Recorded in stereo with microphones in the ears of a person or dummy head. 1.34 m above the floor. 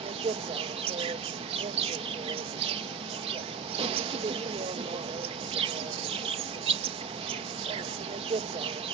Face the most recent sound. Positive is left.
turn(degrees=-30)  # may be behind; listen again after turning